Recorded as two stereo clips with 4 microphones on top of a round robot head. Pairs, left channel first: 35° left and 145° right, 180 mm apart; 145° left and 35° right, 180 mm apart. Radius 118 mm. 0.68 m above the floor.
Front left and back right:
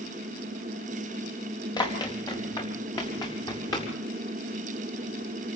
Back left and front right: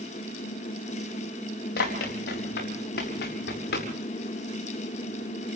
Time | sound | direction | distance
1.8 | running footsteps | 105° left | 5 m